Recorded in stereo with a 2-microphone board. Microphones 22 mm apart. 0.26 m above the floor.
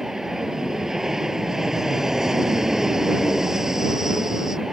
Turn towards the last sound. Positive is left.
turn(degrees=-25)  # may be behind; listen again after turning